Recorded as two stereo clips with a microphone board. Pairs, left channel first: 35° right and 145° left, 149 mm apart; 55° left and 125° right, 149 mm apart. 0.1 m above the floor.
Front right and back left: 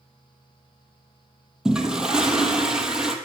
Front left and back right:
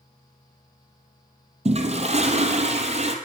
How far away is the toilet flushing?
About 1.4 m.